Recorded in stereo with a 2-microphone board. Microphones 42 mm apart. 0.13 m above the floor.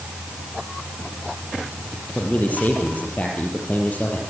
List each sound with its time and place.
2.1 s a man speaking: 40° left (ahead or behind), 4.5 m